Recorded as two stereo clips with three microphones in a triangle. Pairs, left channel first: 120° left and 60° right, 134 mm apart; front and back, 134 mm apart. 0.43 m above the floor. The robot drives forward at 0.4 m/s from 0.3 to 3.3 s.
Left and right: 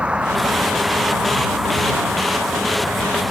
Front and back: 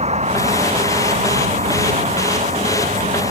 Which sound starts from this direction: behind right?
A vehicle, at 0.0 s.